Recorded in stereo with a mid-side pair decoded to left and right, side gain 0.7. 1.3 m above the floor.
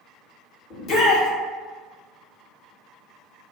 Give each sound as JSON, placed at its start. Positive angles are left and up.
{"t": 0.7, "sound": "a shout", "azimuth_deg": 45, "distance_m": 1.1}